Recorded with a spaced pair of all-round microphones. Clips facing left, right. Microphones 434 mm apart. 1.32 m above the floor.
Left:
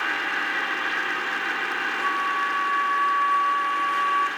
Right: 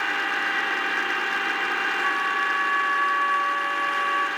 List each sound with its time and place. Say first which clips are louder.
2.0 s a flute: right 1 dB; 55° left (ahead or behind), 2 m